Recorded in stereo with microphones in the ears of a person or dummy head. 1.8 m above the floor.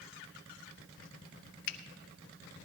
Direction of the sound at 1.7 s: 55° left (ahead or behind).